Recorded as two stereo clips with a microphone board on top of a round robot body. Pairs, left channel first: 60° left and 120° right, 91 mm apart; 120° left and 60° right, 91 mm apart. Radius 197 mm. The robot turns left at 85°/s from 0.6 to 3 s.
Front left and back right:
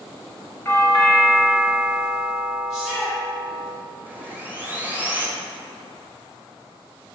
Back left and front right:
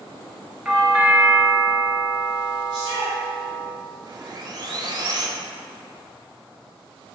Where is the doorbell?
25° left, 1.8 m; by 3.7 s 175° right, 1.8 m.